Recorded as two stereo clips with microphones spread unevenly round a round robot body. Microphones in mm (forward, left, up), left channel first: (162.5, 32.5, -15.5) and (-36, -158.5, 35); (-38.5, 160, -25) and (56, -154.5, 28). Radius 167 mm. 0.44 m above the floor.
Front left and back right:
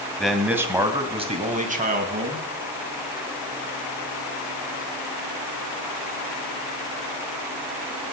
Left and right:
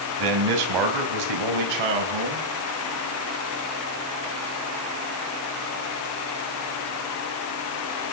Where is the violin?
No violin in this recording.